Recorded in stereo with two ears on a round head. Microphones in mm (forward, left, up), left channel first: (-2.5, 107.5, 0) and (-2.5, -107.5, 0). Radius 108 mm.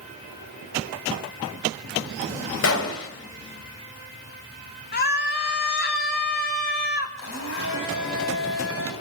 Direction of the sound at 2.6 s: 60° left (ahead or behind).